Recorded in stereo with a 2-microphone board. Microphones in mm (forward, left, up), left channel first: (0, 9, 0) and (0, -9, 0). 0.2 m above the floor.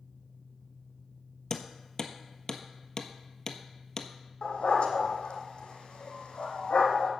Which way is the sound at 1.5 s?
30° left (ahead or behind).